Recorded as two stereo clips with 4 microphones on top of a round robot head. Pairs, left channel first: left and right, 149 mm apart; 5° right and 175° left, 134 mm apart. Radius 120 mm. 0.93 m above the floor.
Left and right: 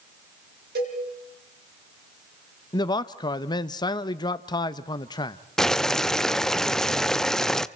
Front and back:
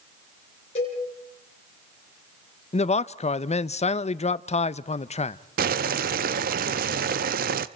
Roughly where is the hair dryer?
No hair dryer in this recording.